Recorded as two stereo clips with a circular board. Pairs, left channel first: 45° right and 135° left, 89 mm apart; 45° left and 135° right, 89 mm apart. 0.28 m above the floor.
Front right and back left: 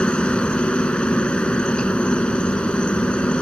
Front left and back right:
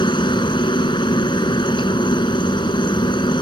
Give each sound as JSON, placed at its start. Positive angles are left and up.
{"t": 0.0, "sound": "a helicopter", "azimuth_deg": 35}